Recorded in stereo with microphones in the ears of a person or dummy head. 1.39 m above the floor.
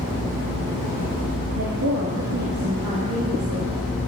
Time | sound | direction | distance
1.5 | a woman speaking | 85° right | 2.5 m